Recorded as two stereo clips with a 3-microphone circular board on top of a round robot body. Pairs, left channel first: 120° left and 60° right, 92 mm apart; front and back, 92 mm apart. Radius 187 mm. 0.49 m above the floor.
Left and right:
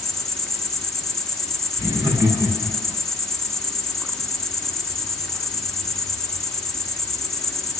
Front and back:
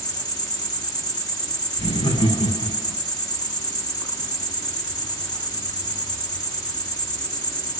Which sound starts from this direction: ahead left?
An insect, at 0.0 s.